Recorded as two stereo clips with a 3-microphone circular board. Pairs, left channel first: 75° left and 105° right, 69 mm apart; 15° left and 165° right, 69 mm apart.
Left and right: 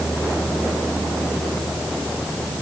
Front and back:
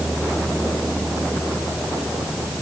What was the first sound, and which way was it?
Only background noise.